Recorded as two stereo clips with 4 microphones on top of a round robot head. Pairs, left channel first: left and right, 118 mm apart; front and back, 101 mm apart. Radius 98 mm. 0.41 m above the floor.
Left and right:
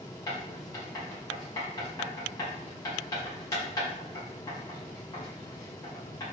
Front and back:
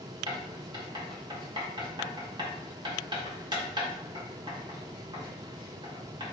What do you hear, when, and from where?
0.3 s writing: 150° left, 1.9 m